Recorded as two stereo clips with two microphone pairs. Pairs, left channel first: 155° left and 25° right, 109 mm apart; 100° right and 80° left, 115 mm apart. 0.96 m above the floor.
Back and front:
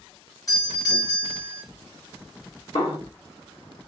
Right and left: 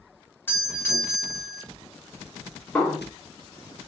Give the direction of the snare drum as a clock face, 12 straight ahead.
6 o'clock.